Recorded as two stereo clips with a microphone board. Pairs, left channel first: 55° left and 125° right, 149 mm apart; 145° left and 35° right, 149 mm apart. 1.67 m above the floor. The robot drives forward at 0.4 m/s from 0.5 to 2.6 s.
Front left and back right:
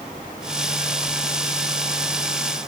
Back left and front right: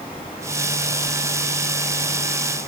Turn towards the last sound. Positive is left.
No sound to turn to.